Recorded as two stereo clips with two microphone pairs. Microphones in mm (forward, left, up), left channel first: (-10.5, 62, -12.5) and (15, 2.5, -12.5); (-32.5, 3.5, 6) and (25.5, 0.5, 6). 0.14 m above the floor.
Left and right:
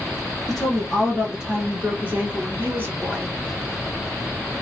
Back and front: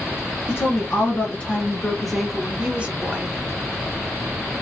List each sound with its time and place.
0.5 s a woman speaking: 155° right, 1.6 m; by 3.3 s 35° right, 1.4 m